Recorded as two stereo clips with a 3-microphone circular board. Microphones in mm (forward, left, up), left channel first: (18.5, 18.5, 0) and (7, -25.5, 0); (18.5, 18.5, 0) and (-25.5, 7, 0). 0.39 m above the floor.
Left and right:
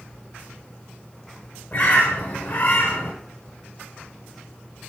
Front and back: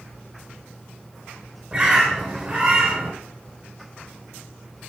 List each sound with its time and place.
1.7 s a bird: 120° left, 5 m